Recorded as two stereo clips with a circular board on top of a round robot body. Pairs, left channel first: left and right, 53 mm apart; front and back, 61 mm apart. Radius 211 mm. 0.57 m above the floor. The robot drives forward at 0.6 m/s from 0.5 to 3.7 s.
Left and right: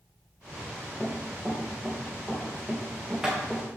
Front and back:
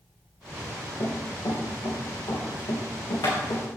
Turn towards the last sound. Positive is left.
turn(degrees=-10)